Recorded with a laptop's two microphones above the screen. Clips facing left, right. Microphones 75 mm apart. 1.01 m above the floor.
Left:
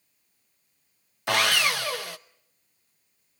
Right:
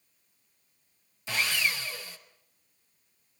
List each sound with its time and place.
1.3 s sawing: 70° left (ahead or behind), 0.7 m